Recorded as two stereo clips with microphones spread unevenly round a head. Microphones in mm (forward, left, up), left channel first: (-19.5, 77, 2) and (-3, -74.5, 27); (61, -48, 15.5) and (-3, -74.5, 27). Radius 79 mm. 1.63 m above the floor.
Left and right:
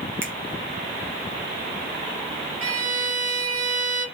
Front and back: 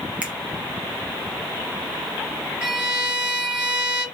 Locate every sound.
0.2 s a finger snap: 125° right, 0.8 m
2.6 s a violin: 105° right, 2 m